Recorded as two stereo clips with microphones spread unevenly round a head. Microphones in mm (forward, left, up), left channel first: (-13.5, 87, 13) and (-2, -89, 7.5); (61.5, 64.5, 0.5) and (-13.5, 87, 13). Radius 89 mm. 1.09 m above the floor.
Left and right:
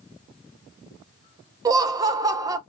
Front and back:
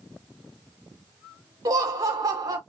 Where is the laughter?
150° right, 0.7 m.